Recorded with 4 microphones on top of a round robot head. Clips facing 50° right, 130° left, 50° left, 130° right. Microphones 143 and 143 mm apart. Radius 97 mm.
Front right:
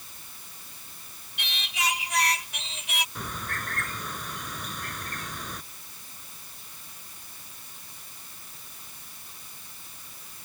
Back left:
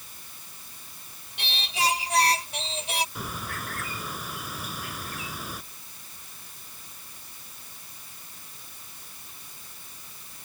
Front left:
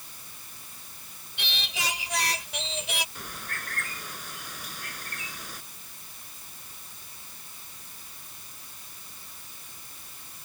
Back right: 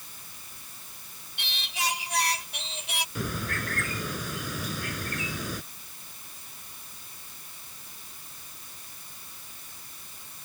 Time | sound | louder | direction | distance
1.4 | singing | back left 4 dB, back right 1 dB | 70° left | ?
3.1 | a bird | back left 1 dB, back right 8 dB | 145° right | ?